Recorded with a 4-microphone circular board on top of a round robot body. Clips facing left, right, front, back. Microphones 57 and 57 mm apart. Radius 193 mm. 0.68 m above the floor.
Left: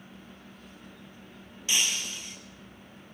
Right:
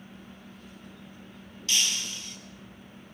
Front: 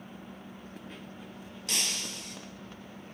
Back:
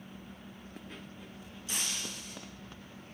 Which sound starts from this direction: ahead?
Breaking glass, at 1.7 s.